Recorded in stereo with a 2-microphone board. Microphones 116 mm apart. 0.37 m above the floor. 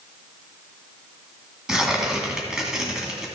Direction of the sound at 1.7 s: 5° right (ahead or behind).